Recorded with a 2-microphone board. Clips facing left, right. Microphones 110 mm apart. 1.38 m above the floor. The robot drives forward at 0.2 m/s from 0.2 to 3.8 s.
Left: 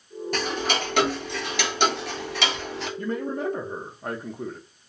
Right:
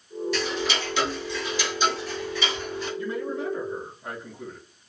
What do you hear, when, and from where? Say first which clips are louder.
0.3 s ticking: left 3 dB; 45° left (ahead or behind), 0.9 m; by 2.9 s 70° left (ahead or behind), 0.7 m
3.0 s a man speaking: left 3 dB; 45° left (ahead or behind), 0.6 m; by 4.6 s 50° left (ahead or behind), 0.5 m